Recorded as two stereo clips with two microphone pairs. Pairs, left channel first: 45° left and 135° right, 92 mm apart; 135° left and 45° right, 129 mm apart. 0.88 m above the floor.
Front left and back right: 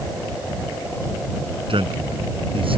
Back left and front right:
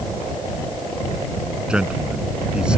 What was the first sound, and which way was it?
A man speaking, 125° right.